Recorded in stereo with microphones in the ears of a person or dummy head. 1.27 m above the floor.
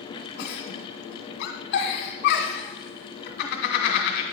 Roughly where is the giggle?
Left.